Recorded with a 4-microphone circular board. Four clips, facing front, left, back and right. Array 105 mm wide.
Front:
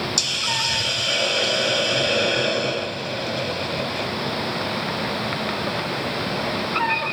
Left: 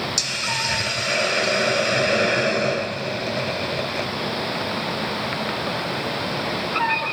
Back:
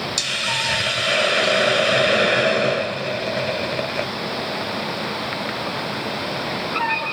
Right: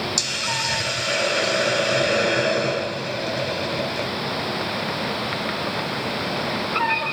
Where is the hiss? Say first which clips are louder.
Even, back 2 dB; 175° left, 0.8 m.